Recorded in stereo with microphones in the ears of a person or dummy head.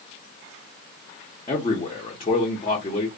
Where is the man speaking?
30° left (ahead or behind), 0.9 m.